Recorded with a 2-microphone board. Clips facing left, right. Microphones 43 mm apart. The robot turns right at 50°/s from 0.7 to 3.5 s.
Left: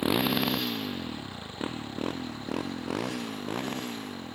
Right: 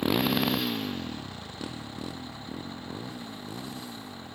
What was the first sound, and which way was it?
A motorcycle, 5° left (ahead or behind).